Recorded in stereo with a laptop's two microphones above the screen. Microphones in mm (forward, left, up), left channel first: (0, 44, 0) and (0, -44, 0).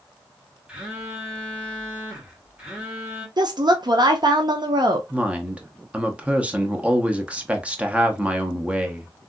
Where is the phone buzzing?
10° right (ahead or behind), 1.6 m.